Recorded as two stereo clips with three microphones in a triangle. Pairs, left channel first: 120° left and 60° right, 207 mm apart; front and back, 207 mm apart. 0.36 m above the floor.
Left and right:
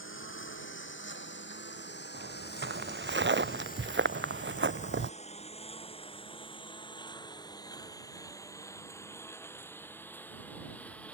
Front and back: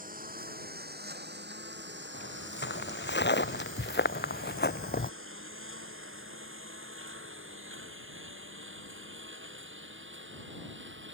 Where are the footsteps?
30° right; by 5.1 s 45° right.